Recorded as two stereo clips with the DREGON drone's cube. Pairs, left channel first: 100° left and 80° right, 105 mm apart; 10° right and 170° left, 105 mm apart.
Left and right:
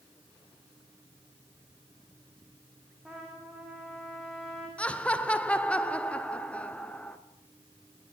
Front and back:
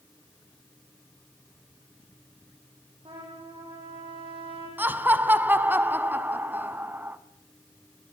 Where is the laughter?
150° left, 1.1 m.